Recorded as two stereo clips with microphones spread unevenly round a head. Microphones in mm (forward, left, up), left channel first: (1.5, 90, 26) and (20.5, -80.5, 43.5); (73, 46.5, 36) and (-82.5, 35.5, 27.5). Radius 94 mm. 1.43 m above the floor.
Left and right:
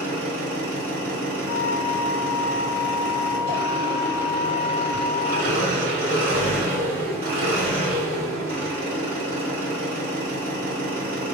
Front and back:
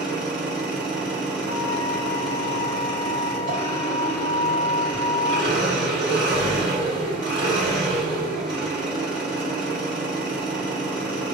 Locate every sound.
0.0 s an engine running: 105° right, 1.7 m
1.5 s a flute: 130° right, 1.1 m